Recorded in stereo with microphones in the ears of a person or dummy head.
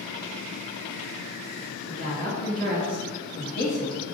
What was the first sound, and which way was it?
A woman speaking, 55° right (ahead or behind).